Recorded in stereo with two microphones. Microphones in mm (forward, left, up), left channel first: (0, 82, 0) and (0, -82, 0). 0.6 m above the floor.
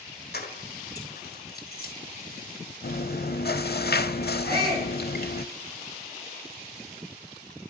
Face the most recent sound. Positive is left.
turn(degrees=80)